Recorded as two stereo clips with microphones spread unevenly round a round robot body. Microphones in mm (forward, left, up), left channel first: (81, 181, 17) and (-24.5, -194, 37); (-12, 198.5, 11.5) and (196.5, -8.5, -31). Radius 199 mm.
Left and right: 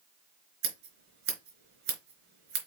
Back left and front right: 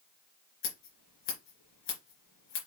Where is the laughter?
I don't hear laughter.